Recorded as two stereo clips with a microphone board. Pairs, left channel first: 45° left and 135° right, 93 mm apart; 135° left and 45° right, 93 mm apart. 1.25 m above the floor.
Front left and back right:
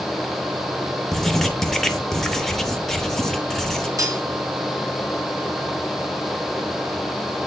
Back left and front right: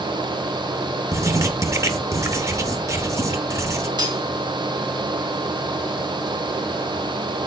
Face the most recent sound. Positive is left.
turn(degrees=-80)